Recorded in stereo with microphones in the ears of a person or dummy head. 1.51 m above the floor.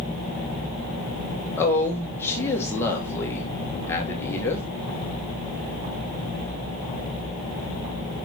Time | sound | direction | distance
1.6 | a woman speaking | 15° left (ahead or behind) | 1.6 m